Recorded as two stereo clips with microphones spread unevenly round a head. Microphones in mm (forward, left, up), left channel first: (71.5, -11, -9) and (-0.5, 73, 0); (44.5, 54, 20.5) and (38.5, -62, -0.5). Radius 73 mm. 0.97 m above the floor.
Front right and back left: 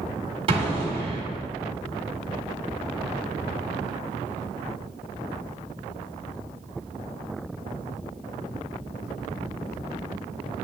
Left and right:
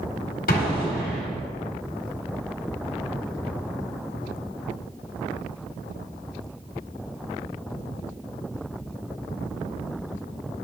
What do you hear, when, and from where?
0.5 s an explosion: 100° left, 1.5 m